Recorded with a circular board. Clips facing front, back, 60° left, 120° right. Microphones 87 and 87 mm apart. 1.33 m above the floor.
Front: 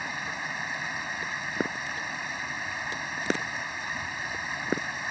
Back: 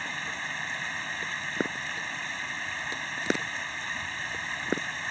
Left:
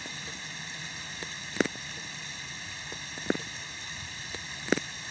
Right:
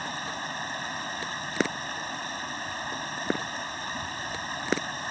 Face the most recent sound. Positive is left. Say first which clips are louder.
# front 1 dB, right 9 dB
turn(degrees=-80)